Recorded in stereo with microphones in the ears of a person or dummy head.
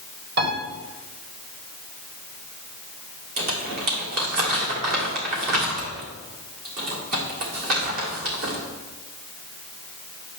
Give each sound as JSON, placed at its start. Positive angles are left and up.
{"t": 0.4, "sound": "a piano", "side_deg": -60, "distance_m": 2.0}
{"t": 3.4, "sound": "crumpling", "side_deg": -50, "distance_m": 1.5}